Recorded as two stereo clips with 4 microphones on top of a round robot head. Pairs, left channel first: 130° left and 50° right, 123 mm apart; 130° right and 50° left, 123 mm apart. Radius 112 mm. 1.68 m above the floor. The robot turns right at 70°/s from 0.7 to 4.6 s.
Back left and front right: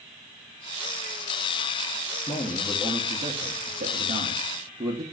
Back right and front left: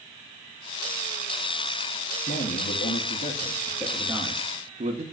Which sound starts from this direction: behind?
A man speaking, at 2.3 s.